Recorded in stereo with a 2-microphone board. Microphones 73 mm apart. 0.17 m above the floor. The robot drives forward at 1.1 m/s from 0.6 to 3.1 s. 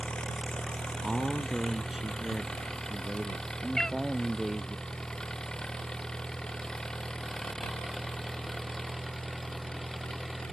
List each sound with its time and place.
0.0 s an engine running: 10° left (ahead or behind)
1.0 s a man speaking: 10° right (ahead or behind); by 4.8 s 5° right (ahead or behind)
3.8 s a cat meowing: 5° left (ahead or behind)